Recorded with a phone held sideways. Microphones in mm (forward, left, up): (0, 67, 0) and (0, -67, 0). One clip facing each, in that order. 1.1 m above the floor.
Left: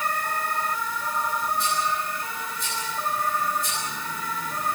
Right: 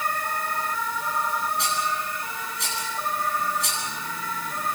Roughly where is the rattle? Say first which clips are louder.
Left 1 dB; right.